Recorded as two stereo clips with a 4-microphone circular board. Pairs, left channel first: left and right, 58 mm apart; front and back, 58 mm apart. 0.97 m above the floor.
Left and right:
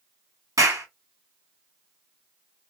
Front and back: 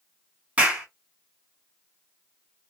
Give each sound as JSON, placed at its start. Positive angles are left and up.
{"t": 0.6, "sound": "a clap", "azimuth_deg": -110, "distance_m": 1.7}